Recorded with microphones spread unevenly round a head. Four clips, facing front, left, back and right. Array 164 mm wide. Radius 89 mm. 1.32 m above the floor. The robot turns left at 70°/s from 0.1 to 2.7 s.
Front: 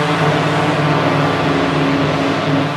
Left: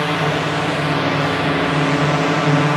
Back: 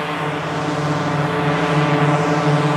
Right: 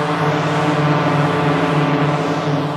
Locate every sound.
0.0 s a drone: 20° right; by 2.8 s 155° left